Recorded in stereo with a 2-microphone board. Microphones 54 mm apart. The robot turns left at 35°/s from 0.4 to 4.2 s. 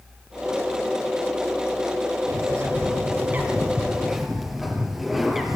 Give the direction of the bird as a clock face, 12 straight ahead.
4 o'clock.